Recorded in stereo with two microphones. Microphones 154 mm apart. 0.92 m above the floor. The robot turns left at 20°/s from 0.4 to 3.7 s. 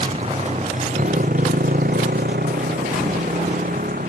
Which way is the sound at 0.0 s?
45° right.